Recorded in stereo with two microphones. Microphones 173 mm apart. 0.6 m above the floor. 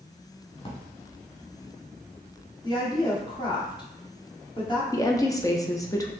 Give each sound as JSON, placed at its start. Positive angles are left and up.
{"t": 0.6, "sound": "a drawer", "side_deg": 30, "distance_m": 1.0}
{"t": 2.6, "sound": "a woman speaking", "side_deg": 30, "distance_m": 1.2}
{"t": 4.9, "sound": "a woman speaking", "side_deg": 20, "distance_m": 0.6}